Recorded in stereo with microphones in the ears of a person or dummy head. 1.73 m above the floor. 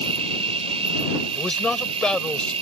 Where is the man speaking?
5° left (ahead or behind).